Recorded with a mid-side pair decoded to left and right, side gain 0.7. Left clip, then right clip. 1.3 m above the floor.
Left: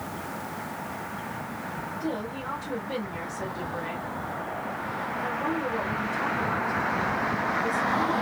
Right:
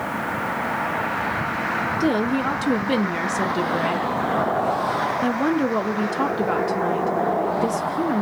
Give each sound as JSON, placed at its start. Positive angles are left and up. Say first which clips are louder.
{"t": 2.0, "sound": "a woman speaking", "louder": "right 10 dB", "azimuth_deg": -60, "distance_m": 0.5}